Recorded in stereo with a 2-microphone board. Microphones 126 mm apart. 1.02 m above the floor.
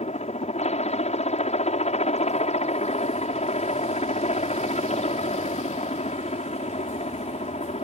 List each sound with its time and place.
0.0 s a helicopter: 60° left (ahead or behind)